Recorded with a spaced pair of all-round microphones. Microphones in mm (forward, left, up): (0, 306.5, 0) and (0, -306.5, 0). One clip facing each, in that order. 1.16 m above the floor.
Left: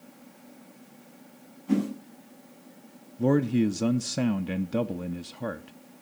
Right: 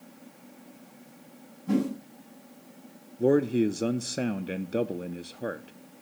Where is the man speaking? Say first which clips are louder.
Right 1 dB; 30° left (ahead or behind), 0.5 m.